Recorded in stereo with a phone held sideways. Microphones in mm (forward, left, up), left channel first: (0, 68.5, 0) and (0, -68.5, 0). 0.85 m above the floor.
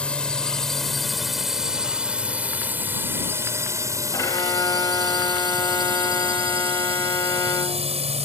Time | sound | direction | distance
0.0 | a drone | 10° left (ahead or behind) | ?
4.1 | a violin | 25° left (ahead or behind) | ?